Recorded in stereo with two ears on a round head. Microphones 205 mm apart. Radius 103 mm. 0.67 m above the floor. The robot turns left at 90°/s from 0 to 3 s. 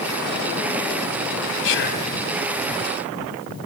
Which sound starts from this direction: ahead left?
Whispering, at 1.6 s.